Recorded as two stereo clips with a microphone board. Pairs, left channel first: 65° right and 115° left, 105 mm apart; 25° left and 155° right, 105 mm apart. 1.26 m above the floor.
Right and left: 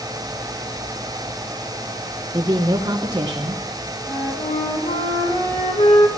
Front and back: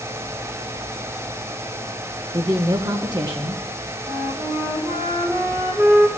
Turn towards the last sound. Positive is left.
turn(degrees=-90)